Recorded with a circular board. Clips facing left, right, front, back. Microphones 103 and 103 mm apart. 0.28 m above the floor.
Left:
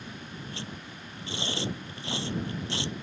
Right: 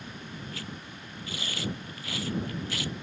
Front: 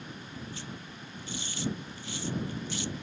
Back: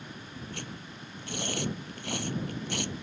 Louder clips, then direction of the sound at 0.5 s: Even, back 1 dB; 155° left.